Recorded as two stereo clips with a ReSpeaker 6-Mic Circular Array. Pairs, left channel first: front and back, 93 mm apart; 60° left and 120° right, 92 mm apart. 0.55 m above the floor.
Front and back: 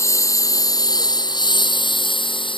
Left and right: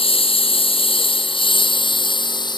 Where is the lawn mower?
55° left; by 2.6 s 25° left.